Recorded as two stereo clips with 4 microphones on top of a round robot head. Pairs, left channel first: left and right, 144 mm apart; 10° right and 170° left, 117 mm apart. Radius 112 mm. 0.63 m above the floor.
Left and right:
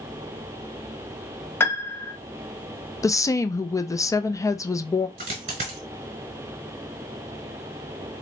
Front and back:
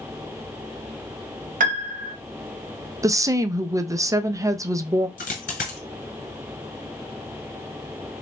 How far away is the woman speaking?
About 0.5 m.